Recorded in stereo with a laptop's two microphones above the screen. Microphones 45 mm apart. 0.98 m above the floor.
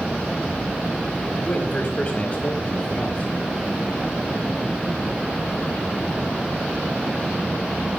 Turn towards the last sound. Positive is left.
turn(degrees=30)  # may be behind; listen again after turning